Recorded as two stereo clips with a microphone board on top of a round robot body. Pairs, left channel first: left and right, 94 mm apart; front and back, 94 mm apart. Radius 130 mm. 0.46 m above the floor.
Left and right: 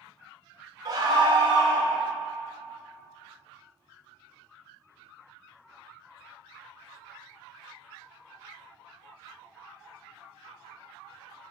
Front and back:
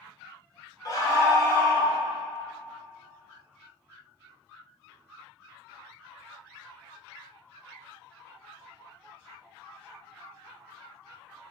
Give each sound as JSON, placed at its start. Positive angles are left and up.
{"t": 0.8, "sound": "a scream", "azimuth_deg": -45, "distance_m": 1.9}